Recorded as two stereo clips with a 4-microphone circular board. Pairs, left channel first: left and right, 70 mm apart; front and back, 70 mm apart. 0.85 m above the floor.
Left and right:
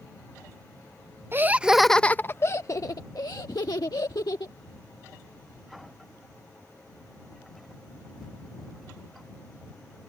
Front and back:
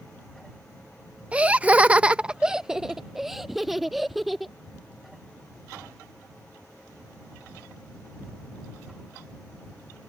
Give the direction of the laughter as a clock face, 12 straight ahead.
4 o'clock.